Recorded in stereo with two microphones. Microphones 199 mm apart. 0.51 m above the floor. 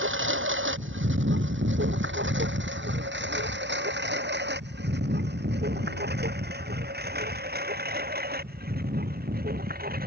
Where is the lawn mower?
85° right; by 10.1 s 50° right (ahead or behind).